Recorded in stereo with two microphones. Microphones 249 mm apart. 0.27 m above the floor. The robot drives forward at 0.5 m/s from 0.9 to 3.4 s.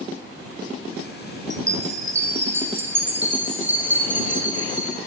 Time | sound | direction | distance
1.5 | a chime | 15° right (ahead or behind) | 0.8 m